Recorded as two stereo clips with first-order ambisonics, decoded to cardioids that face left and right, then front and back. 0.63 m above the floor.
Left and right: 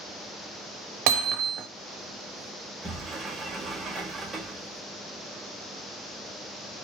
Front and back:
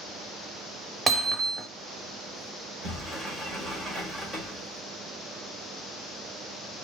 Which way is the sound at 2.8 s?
140° right.